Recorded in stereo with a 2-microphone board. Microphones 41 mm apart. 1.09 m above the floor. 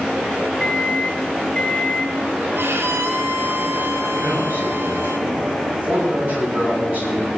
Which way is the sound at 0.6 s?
25° left (ahead or behind).